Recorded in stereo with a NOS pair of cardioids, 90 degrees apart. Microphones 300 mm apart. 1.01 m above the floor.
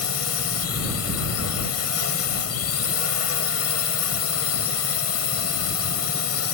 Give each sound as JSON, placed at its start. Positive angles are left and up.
{"t": 0.0, "sound": "a drone", "azimuth_deg": 50}